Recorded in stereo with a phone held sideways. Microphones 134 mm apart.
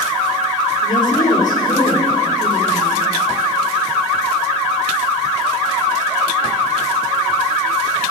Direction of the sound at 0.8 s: 75° left (ahead or behind).